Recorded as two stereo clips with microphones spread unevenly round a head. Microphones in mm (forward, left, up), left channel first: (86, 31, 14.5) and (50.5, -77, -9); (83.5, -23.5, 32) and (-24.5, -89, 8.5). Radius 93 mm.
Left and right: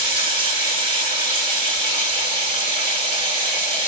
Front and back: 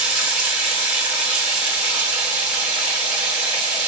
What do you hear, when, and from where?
0.0 s running water: 130° right, 10 m